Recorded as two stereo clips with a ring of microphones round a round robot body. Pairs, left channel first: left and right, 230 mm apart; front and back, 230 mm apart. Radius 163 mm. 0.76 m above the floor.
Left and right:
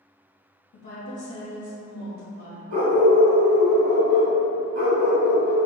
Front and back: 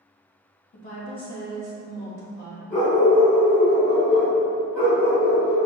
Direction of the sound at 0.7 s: 50° left.